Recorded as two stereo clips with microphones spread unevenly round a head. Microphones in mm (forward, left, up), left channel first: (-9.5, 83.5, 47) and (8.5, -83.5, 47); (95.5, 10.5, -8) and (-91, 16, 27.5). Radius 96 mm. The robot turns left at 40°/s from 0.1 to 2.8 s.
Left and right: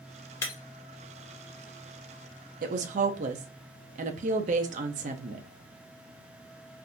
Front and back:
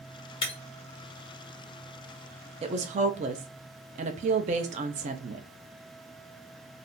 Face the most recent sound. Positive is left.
turn(degrees=-130)